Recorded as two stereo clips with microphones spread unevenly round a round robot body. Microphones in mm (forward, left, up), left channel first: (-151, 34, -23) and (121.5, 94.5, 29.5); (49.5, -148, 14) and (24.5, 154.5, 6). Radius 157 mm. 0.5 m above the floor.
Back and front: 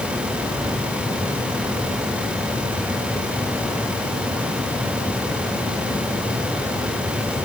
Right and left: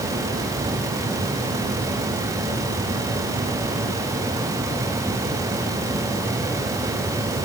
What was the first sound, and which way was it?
Only background noise.